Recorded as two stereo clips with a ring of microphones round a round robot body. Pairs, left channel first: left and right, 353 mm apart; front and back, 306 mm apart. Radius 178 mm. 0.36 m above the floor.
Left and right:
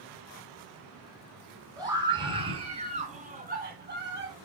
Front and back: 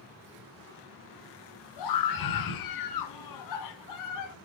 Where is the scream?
10° right, 4.5 m; by 4.3 s 35° right, 3.5 m.